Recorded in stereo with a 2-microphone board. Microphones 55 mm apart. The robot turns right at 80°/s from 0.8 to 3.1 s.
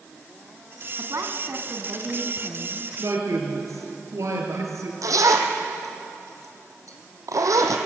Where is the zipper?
90° right, 2 m.